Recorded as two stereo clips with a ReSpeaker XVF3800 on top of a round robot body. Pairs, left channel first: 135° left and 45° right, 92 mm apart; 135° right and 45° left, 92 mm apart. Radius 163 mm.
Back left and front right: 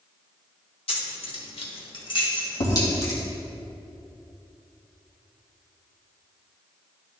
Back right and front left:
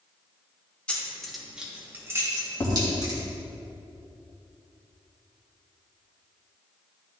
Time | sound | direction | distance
0.9 | keys jangling | 145° left | 2 m
2.6 | tapping | 160° left | 3 m